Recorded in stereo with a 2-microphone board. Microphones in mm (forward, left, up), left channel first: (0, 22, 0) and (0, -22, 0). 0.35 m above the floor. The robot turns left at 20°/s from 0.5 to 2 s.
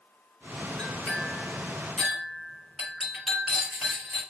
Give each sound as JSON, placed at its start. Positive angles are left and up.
{"t": 0.8, "sound": "a clink", "side_deg": 20, "distance_m": 2.5}